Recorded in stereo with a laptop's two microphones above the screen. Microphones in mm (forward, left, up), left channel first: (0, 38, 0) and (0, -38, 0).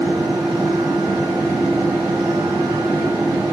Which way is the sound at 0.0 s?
80° right.